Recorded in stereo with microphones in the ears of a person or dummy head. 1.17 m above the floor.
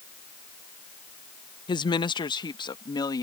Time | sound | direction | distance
1.7 | a woman speaking | 25° left (ahead or behind) | ?